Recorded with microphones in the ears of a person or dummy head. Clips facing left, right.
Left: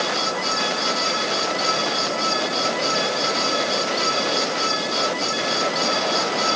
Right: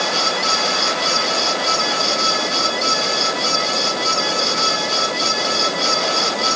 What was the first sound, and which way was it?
Only background noise.